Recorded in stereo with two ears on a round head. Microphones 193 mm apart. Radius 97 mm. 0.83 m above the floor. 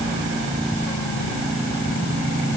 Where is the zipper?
No zipper in this recording.